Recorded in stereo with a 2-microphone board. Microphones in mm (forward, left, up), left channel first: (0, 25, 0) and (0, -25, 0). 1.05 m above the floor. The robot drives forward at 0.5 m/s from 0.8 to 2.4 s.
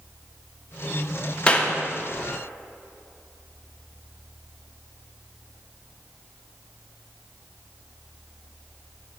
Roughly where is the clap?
Left.